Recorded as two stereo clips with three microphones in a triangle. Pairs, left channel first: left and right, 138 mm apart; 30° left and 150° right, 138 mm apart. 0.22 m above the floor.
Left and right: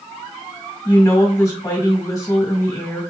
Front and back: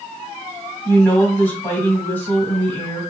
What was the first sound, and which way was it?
A woman speaking, 90° left.